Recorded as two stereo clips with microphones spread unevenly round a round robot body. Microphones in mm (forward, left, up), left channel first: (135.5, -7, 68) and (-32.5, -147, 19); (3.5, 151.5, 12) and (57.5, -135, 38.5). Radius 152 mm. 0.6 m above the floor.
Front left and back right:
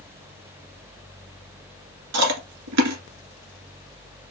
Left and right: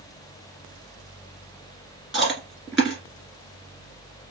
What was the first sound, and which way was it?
Chewing, 165° right.